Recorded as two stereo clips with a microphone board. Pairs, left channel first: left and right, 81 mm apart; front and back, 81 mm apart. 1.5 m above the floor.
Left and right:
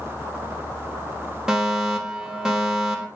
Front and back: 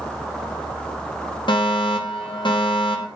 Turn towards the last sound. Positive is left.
turn(degrees=-10)